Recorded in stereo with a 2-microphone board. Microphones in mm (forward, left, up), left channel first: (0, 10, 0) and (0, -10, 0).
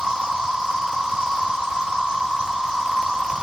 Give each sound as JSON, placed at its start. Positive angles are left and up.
{"t": 0.0, "sound": "an insect", "side_deg": -55, "distance_m": 1.1}